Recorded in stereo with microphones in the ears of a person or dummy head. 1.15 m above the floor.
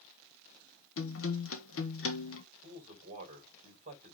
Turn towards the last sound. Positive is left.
turn(degrees=-40)  # may be behind; listen again after turning